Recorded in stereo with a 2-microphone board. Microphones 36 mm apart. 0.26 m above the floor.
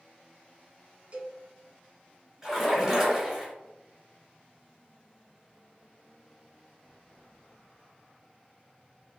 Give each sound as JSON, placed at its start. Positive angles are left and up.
{"t": 1.1, "sound": "a cowbell", "side_deg": -35, "distance_m": 0.7}
{"t": 2.4, "sound": "a splash", "side_deg": -5, "distance_m": 1.4}